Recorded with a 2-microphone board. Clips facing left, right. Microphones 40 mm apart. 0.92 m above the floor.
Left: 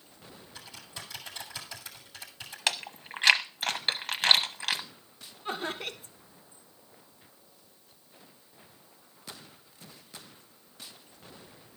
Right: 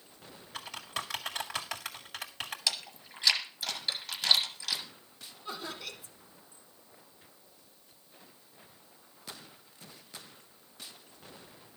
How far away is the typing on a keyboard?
About 2 m.